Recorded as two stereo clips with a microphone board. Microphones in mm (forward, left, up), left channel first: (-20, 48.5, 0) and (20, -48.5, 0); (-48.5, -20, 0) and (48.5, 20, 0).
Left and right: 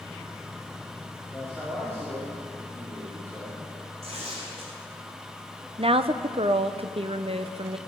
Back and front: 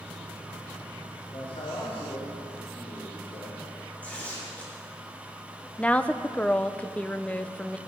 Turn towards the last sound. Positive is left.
turn(degrees=-80)